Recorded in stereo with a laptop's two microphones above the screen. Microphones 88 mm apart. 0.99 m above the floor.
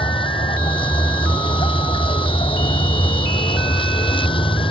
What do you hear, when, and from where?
0.0 s a vehicle: 85° left